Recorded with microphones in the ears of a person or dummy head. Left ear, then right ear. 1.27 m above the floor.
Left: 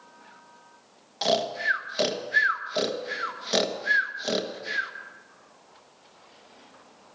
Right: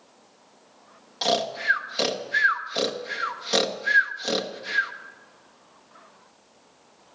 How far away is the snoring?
About 1.1 m.